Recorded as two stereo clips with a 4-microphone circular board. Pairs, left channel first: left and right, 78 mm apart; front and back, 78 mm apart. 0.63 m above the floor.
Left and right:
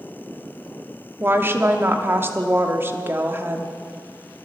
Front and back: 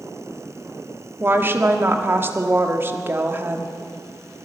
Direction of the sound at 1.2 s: 135° right.